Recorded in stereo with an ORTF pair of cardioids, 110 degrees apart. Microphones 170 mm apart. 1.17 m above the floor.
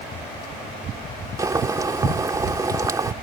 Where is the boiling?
20° right.